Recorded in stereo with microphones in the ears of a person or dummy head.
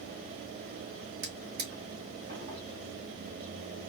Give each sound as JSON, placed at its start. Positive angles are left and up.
{"t": 1.2, "sound": "a drawer", "side_deg": -50, "distance_m": 2.0}